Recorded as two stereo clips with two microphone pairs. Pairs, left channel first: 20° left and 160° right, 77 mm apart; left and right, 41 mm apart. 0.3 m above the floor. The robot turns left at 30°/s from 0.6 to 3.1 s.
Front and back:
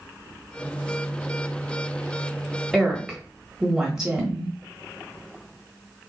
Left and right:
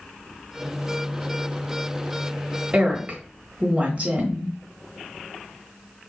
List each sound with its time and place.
2.7 s a woman speaking: 75° right, 1.1 m; by 4.5 s 85° right, 1.1 m